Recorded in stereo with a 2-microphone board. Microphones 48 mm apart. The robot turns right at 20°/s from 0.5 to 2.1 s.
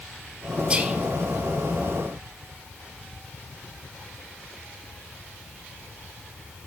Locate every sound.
0.7 s whispering: 25° right (ahead or behind), 3 m; by 1.0 s 20° right (ahead or behind), 3 m